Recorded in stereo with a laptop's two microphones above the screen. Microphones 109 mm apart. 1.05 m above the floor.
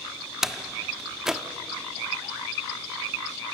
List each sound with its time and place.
0.4 s a door slam: 5° right (ahead or behind), 1.2 m